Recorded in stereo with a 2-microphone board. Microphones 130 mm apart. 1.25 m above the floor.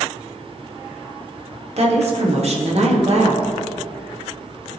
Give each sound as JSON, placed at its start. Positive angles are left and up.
{"t": 1.8, "sound": "a woman speaking", "side_deg": -55, "distance_m": 1.6}